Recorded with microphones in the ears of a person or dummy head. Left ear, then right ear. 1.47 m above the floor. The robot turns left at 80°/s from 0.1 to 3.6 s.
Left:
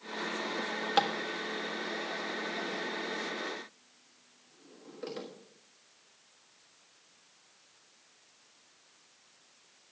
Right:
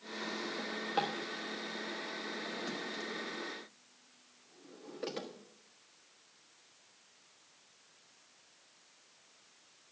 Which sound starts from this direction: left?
A drawer, at 0.6 s.